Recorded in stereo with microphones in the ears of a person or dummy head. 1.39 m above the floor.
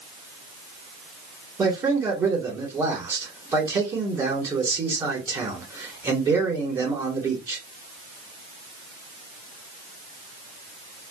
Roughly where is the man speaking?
Centre.